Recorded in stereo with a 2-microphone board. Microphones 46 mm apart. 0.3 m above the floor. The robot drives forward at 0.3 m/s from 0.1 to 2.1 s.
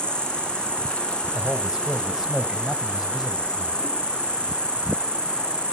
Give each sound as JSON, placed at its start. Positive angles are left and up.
{"t": 0.0, "sound": "an insect", "side_deg": 20, "distance_m": 9.5}
{"t": 1.3, "sound": "a man speaking", "side_deg": -10, "distance_m": 1.5}